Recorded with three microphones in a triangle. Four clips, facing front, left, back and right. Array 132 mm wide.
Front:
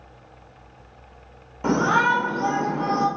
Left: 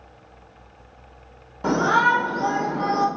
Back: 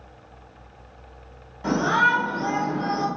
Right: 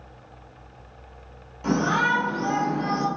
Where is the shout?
50° left, 2.5 m.